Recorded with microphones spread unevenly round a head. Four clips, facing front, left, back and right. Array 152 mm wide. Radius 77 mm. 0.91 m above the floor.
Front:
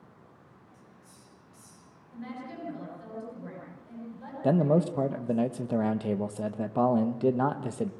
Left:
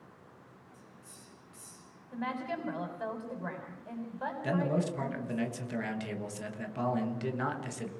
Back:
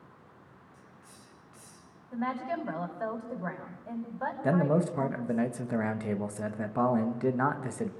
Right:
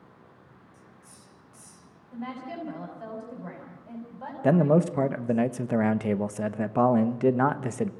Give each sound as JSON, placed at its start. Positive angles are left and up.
{"t": 0.7, "sound": "a hiss", "azimuth_deg": -170, "distance_m": 4.5}
{"t": 2.1, "sound": "a woman speaking", "azimuth_deg": 165, "distance_m": 6.0}
{"t": 4.4, "sound": "a man speaking", "azimuth_deg": -80, "distance_m": 1.2}